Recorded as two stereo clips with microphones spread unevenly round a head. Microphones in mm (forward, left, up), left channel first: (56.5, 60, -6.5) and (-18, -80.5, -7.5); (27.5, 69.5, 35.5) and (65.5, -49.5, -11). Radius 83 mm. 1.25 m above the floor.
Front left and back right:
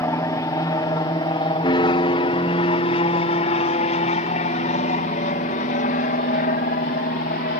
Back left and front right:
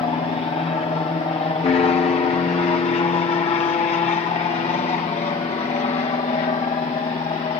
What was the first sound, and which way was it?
An aircraft, 95° left.